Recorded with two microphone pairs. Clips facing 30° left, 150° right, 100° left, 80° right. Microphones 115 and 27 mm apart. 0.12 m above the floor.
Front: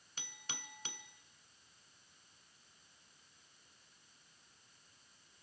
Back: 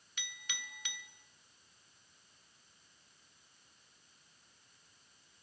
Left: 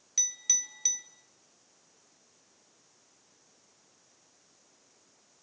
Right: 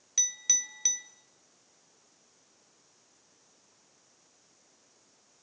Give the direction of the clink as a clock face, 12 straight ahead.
12 o'clock.